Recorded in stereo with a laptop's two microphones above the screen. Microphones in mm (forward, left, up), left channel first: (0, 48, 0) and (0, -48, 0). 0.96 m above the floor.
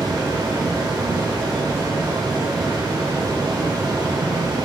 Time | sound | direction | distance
0.0 | a fan | 35° right (ahead or behind) | 0.7 m